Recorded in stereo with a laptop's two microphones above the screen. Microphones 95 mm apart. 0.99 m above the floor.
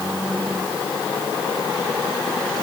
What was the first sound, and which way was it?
Only background noise.